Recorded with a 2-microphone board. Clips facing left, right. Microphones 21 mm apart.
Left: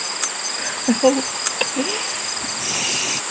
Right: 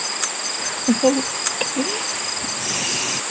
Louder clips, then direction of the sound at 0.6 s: Left 1 dB; 20° left (ahead or behind).